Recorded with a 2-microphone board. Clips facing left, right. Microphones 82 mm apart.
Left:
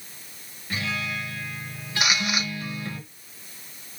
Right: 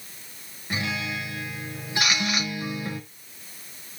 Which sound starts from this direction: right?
A guitar, at 0.7 s.